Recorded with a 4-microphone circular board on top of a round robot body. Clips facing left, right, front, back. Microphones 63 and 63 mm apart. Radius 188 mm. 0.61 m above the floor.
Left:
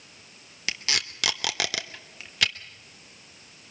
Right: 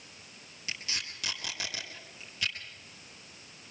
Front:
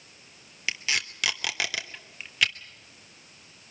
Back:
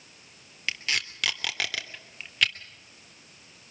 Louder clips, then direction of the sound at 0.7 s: Left 8 dB, front 1 dB; 85° left.